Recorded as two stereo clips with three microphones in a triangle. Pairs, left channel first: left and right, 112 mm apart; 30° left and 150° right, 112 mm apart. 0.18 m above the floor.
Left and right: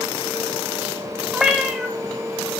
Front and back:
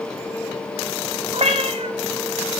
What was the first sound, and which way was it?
A cat meowing, 175° right.